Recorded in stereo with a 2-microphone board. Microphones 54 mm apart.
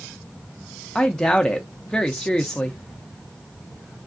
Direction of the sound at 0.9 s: 15° left (ahead or behind).